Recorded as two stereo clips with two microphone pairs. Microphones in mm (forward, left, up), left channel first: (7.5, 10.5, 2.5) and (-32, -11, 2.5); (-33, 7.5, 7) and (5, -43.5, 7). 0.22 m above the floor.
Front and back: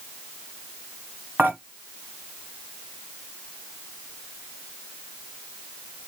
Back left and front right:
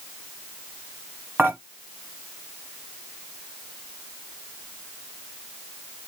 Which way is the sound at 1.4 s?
115° right.